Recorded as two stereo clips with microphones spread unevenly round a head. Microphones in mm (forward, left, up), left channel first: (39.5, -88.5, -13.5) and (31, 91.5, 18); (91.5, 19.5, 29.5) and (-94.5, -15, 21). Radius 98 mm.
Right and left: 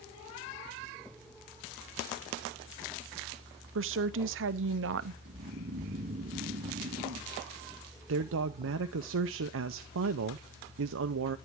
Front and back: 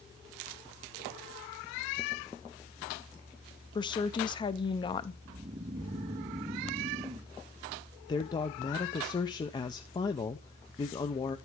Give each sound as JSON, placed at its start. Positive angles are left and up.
{"t": 3.8, "sound": "a woman speaking", "azimuth_deg": 80, "distance_m": 0.7}
{"t": 5.2, "sound": "snoring", "azimuth_deg": 135, "distance_m": 0.7}
{"t": 8.1, "sound": "a man speaking", "azimuth_deg": 80, "distance_m": 0.5}